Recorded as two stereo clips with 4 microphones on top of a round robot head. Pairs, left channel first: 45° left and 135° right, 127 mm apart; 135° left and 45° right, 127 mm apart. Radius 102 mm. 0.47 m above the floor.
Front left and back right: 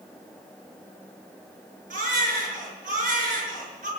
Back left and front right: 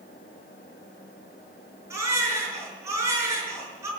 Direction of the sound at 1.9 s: 115° right.